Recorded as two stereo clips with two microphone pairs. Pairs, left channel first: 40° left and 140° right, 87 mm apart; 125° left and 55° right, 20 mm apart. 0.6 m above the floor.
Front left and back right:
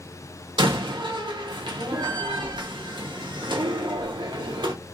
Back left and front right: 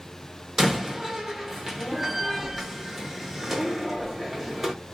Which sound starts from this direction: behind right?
A door slam, at 0.6 s.